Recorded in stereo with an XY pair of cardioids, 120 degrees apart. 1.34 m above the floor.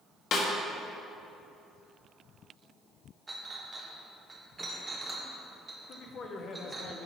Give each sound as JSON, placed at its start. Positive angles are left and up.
{"t": 0.3, "sound": "a snare drum", "azimuth_deg": 55, "distance_m": 1.4}
{"t": 3.3, "sound": "a clink", "azimuth_deg": -15, "distance_m": 1.2}
{"t": 5.9, "sound": "a man speaking", "azimuth_deg": 50, "distance_m": 1.0}